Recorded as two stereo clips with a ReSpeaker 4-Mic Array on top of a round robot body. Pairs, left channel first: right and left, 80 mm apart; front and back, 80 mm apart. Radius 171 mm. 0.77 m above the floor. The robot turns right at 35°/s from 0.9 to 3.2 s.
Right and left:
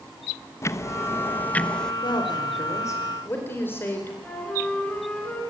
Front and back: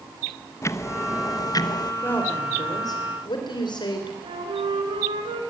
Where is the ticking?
45° right, 1.2 m; by 1.9 s 10° right, 1.2 m.